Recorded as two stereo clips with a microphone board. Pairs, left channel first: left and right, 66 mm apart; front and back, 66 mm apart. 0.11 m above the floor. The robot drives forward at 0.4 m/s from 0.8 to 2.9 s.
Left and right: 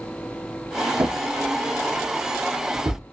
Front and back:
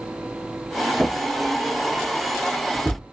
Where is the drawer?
80° right, 2 m; by 3.0 s 100° right, 2 m.